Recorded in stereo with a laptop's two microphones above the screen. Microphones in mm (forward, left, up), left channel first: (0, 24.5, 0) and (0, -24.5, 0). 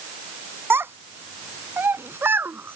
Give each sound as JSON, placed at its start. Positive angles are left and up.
{"t": 0.7, "sound": "a child speaking", "side_deg": -55}